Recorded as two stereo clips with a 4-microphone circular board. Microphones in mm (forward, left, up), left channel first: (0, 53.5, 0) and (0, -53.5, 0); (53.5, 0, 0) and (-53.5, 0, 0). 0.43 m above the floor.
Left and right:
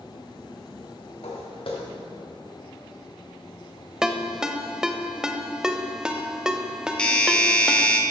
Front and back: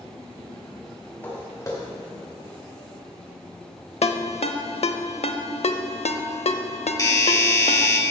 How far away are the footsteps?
About 2.5 m.